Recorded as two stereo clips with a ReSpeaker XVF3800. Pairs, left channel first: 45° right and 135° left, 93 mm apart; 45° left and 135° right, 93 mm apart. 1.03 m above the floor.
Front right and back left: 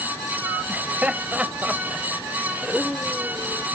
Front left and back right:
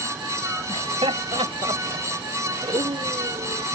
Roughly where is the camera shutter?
No camera shutter in this recording.